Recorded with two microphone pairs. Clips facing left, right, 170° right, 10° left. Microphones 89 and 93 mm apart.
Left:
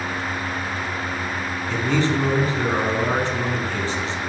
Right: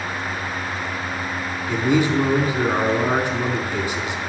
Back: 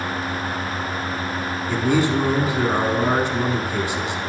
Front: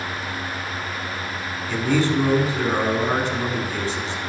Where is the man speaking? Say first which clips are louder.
Right 3 dB, back 1 dB; 135° right, 1.0 m.